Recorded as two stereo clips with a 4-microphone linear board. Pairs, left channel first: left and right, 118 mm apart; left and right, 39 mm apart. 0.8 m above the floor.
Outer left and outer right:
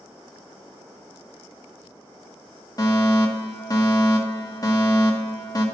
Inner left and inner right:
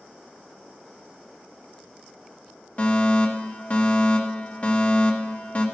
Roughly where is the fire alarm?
Left.